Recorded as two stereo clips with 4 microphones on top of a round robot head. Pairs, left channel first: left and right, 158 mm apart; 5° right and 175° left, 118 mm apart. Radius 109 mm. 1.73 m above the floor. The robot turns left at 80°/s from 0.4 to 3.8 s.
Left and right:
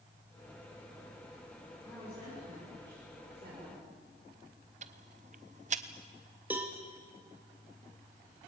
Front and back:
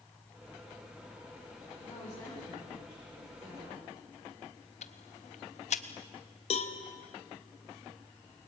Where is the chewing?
No chewing in this recording.